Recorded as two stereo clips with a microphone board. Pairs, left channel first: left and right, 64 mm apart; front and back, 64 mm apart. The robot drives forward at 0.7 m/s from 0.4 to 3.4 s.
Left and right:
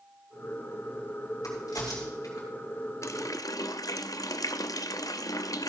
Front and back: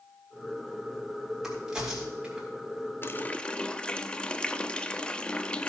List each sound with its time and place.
1.4 s a crack: 95° left, 3.5 m; by 2.5 s 105° left, 4 m
3.0 s a running tap: 50° left, 0.7 m; by 5.7 s 75° left, 0.6 m